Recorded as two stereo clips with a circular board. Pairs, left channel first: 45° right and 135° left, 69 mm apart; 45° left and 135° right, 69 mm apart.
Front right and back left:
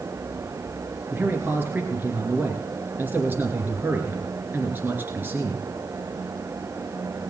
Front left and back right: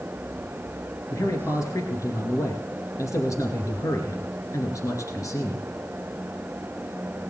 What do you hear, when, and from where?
1.1 s a man speaking: 80° left, 2.5 m